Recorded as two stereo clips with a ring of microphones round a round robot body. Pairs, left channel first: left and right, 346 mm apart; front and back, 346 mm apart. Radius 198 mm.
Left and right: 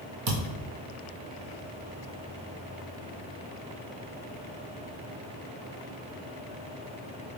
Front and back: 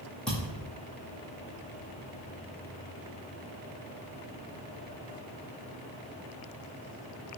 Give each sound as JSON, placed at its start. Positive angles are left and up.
{"t": 0.3, "sound": "a thud", "azimuth_deg": -90, "distance_m": 1.5}